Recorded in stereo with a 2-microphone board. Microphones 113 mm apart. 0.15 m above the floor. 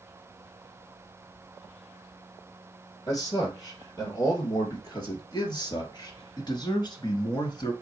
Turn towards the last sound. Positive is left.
turn(degrees=40)  # may be behind; listen again after turning